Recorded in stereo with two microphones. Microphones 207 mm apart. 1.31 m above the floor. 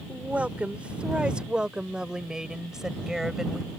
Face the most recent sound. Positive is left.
turn(degrees=0)  # may be behind; listen again after turning